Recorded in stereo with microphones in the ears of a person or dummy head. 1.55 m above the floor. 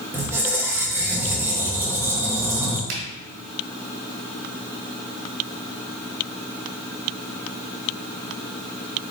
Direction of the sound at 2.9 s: 70° right (ahead or behind).